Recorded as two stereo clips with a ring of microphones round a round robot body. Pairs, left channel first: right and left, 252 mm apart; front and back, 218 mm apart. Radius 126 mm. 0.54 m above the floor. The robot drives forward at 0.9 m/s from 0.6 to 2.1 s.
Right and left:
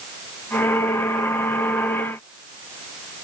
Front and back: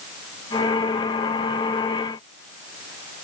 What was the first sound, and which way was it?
Only background noise.